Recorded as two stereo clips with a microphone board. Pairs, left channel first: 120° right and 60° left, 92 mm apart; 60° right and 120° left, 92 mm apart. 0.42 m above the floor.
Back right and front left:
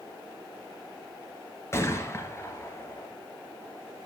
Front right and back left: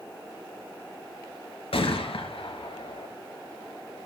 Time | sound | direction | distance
1.7 | a gunshot | 60° right | 3 m